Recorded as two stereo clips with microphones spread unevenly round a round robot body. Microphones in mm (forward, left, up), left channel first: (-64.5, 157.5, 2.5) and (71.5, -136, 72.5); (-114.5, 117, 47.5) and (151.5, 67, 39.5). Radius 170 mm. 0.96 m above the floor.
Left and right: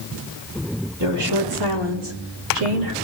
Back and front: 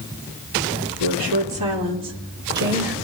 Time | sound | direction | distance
1.0 | a woman speaking | 30° right | 3 m